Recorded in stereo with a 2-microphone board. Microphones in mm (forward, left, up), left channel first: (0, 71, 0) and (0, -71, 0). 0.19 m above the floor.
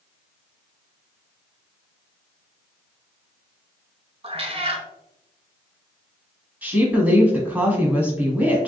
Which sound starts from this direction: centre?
A woman speaking, at 6.6 s.